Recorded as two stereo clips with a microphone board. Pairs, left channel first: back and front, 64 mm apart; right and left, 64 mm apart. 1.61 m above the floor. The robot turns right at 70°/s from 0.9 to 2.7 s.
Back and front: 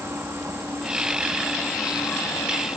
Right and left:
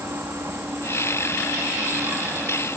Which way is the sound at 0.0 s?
45° left.